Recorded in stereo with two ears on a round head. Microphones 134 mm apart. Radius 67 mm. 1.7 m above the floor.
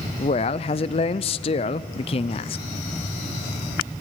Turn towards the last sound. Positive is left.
turn(degrees=40)  # may be behind; listen again after turning